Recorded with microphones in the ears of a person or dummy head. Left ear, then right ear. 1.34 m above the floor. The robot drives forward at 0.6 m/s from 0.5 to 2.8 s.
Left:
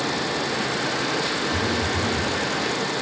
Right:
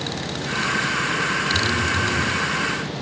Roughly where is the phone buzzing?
Left.